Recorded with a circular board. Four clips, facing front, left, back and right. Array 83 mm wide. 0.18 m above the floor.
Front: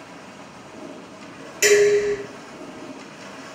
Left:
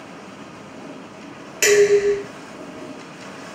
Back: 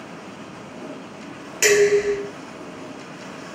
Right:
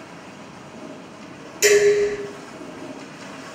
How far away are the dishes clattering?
About 1.0 m.